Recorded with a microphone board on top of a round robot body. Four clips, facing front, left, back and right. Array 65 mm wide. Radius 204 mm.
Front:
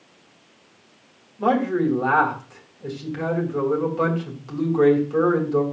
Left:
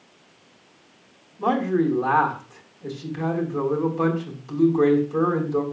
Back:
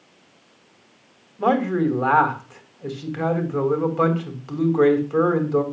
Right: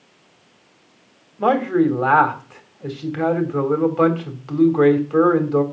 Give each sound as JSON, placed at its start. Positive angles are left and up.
{"t": 1.4, "sound": "a man speaking", "azimuth_deg": -115, "distance_m": 3.5}